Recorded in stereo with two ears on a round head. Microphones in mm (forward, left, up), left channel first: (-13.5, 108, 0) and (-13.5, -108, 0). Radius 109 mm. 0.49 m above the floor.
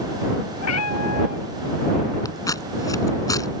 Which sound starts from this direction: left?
A cat meowing, at 0.6 s.